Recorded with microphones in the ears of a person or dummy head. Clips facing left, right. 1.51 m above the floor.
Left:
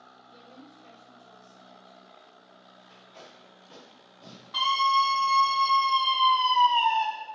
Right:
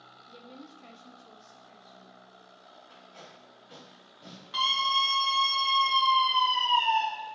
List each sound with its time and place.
0.3 s a woman speaking: 35° right (ahead or behind), 0.6 m; by 2.1 s 65° right (ahead or behind), 1.4 m
2.9 s tape being pulled: 15° right (ahead or behind), 1.9 m
4.5 s a scream: 45° right (ahead or behind), 2 m